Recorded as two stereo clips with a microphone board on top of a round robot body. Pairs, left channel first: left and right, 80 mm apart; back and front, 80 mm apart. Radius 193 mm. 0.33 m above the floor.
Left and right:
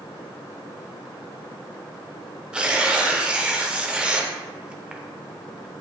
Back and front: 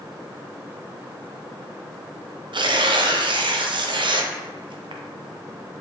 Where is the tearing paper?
15° right, 0.5 m.